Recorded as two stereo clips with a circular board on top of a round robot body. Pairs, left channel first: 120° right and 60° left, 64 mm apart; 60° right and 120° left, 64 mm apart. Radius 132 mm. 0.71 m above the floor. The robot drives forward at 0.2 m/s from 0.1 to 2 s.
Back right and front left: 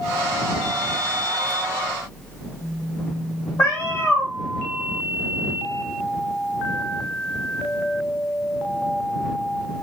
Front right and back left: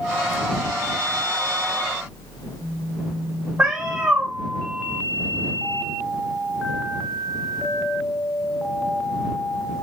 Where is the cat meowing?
Straight behind, 0.5 m.